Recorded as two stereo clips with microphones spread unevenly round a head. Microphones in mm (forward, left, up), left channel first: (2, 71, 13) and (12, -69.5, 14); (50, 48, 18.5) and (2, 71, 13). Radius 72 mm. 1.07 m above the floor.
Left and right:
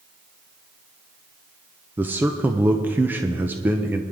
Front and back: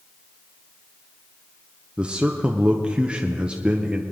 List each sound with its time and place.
2.0 s a man speaking: 155° right, 0.7 m